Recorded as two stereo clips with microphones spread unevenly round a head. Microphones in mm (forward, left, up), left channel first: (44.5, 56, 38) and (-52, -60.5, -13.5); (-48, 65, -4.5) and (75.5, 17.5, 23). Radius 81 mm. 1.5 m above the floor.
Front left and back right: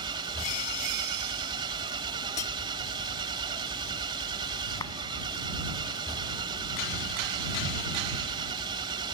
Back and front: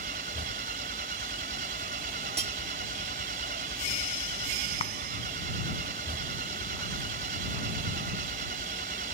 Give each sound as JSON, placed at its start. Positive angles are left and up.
{"t": 0.0, "sound": "an engine running", "azimuth_deg": -65}
{"t": 2.4, "sound": "cutlery clinking", "azimuth_deg": 15}
{"t": 4.8, "sound": "a clap", "azimuth_deg": 115}